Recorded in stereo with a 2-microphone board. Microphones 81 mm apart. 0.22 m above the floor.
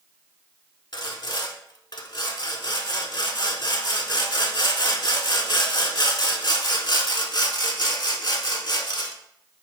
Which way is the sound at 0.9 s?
60° left (ahead or behind).